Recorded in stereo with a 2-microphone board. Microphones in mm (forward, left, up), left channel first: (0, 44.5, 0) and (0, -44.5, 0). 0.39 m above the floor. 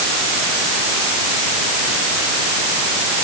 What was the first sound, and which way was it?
Only background noise.